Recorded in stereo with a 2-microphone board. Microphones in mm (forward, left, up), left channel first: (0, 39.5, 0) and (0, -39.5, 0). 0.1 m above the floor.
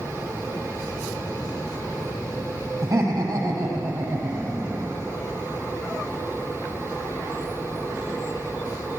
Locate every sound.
2.8 s laughter: 40° right (ahead or behind), 3.5 m; by 5.1 s 35° right (ahead or behind), 5 m